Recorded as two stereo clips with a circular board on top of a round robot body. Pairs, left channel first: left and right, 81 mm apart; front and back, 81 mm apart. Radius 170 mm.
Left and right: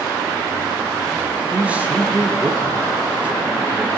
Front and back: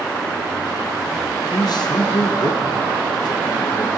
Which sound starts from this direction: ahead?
A man speaking, at 1.5 s.